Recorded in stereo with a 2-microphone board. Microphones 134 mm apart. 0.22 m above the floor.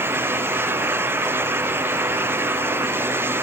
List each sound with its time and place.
Only background noise.